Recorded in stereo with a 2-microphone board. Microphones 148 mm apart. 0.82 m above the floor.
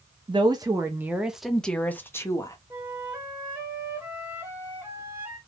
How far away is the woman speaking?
About 0.9 m.